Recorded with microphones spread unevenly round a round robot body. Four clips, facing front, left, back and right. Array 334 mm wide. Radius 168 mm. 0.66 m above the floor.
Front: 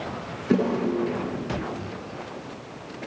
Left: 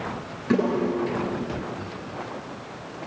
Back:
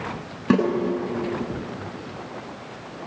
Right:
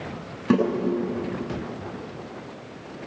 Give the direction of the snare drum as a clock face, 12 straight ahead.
5 o'clock.